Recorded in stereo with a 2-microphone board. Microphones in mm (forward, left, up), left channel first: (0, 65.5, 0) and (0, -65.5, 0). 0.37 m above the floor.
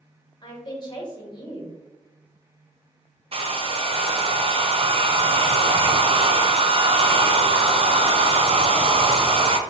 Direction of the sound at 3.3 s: 45° right (ahead or behind).